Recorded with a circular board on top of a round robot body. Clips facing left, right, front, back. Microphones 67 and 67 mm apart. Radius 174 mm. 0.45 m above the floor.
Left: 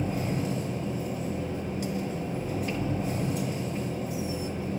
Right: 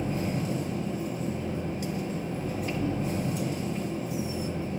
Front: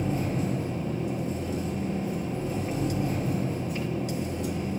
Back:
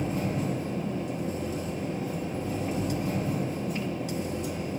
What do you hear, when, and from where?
0.0 s an engine running: 170° left, 1.5 m